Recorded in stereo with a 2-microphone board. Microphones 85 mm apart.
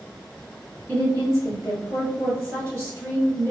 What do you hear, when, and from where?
0.9 s a woman speaking: 35° right (ahead or behind), 1.6 m